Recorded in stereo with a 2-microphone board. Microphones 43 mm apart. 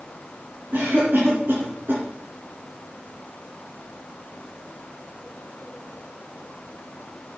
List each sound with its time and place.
0.7 s a cough: 55° right (ahead or behind), 3 m